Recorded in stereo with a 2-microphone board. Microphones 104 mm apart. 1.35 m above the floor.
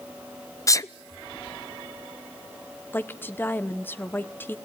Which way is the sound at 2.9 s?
20° left (ahead or behind).